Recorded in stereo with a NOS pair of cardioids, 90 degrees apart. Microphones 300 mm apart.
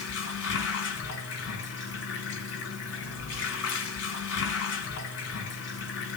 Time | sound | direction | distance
0.0 | running water | 55° left | 5 m